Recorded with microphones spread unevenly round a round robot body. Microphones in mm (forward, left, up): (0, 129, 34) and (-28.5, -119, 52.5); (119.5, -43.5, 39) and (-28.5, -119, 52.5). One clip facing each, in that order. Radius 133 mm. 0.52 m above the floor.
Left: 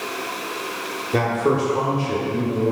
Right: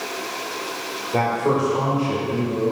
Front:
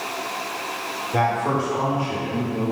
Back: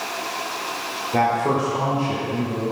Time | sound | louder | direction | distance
1.1 | a man speaking | left 1 dB, back 2 dB | 125° left | 1.4 m